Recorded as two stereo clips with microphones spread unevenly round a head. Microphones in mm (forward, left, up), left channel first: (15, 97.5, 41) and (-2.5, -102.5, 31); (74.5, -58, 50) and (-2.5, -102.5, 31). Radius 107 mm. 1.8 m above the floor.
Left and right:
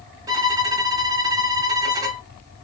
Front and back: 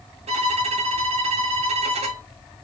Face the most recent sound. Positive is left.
turn(degrees=-170)